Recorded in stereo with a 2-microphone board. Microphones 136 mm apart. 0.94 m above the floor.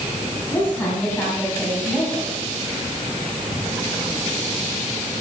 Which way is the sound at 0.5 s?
15° left (ahead or behind).